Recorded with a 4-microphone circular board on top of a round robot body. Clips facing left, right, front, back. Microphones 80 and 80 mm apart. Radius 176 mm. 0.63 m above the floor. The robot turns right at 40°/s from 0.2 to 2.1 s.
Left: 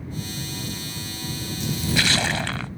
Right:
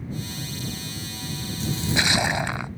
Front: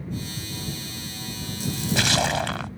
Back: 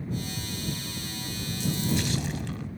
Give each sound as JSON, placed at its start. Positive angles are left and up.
{"t": 1.6, "sound": "a splash", "azimuth_deg": -35}